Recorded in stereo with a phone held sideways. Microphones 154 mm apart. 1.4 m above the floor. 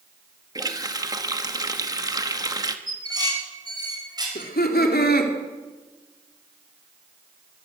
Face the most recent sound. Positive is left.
turn(degrees=90)